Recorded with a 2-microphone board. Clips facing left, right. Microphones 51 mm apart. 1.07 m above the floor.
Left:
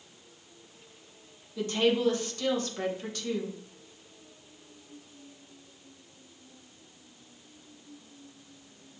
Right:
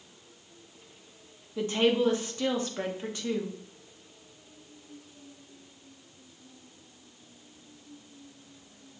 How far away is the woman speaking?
About 0.9 m.